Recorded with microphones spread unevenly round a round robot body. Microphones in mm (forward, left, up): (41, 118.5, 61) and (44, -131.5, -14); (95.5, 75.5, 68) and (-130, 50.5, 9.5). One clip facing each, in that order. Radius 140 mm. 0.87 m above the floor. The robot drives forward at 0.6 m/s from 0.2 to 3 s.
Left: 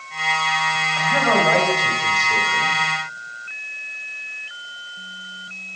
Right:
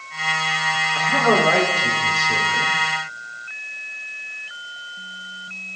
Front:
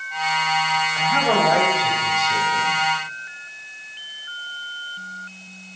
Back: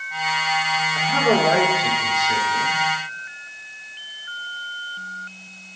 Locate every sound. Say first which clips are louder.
0.9 s a man speaking: right 2 dB, back 3 dB; 115° right, 2.5 m; by 2.8 s 135° right, 3 m